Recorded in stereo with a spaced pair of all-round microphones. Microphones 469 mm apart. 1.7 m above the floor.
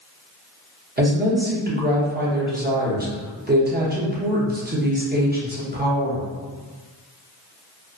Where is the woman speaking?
20° right (ahead or behind), 0.7 m.